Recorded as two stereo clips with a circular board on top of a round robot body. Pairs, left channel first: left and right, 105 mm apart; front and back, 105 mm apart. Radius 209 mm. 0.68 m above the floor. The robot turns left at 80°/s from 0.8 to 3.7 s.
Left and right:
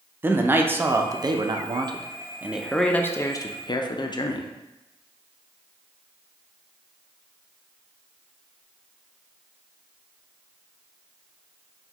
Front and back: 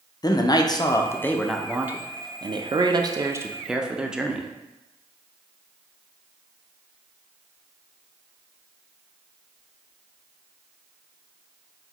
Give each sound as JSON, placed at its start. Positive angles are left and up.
{"t": 0.2, "sound": "a man speaking", "azimuth_deg": -30, "distance_m": 0.5}